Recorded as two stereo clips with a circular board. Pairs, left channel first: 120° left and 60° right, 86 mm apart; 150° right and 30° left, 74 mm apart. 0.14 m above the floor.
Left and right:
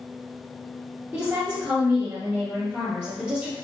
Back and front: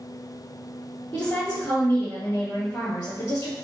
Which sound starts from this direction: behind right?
A woman speaking, at 1.1 s.